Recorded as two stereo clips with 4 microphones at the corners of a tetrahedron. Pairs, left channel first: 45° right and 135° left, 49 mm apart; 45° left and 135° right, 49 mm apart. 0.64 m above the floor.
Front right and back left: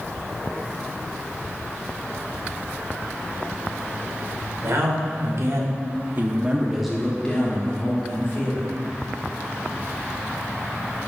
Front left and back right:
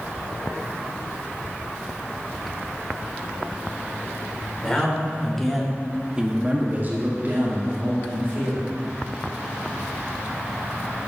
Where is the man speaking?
120° left, 2.5 m; by 8.7 s 90° right, 2.5 m.